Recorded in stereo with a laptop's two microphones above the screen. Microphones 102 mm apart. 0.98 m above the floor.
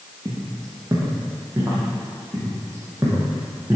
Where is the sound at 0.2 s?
45° right (ahead or behind), 1.5 m; by 1.8 s 25° right (ahead or behind), 2.5 m.